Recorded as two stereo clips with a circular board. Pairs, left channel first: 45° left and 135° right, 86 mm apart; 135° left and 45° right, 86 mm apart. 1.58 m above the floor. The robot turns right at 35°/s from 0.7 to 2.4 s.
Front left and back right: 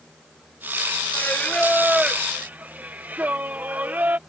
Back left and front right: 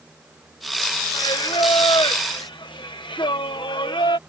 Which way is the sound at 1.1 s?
110° left.